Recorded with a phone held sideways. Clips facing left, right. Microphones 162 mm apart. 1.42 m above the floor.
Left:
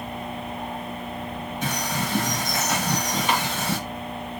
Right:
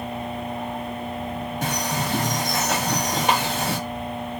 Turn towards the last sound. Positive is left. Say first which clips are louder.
# right 1 dB
turn(degrees=-75)  # may be behind; listen again after turning